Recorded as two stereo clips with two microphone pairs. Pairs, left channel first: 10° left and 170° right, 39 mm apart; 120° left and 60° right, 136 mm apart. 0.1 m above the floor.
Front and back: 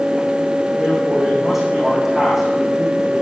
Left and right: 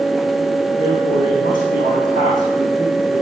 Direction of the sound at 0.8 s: 105° left.